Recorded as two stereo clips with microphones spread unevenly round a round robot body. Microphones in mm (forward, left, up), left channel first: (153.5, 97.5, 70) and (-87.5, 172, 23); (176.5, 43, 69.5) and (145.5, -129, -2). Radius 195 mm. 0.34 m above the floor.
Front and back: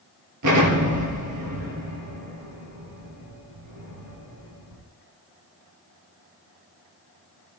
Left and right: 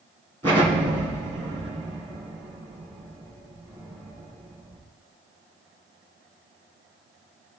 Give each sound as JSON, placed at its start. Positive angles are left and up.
{"t": 0.4, "sound": "an explosion", "azimuth_deg": 180, "distance_m": 1.8}